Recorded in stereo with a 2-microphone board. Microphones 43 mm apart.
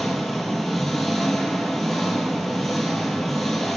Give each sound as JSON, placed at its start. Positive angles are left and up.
{"t": 0.0, "sound": "an engine running", "side_deg": 5, "distance_m": 0.8}